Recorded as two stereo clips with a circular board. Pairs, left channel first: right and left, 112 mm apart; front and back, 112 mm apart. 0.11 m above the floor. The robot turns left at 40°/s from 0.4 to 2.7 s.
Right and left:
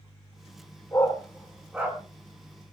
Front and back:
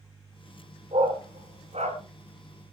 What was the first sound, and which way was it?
A dog barking, 155° right.